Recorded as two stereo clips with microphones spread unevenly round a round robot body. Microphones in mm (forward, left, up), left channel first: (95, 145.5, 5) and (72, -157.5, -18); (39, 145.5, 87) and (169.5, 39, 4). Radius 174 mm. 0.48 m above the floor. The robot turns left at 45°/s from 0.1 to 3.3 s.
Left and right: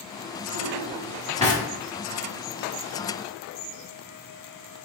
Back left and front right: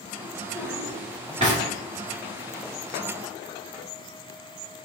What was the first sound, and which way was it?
A drawer, 45° left.